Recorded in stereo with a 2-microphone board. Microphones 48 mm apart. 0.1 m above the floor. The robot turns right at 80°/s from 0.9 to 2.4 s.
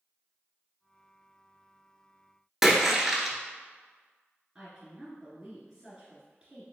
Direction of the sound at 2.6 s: 5° right (ahead or behind).